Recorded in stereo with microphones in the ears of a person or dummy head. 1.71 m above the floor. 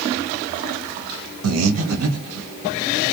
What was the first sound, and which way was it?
Breathing, 75° right (ahead or behind).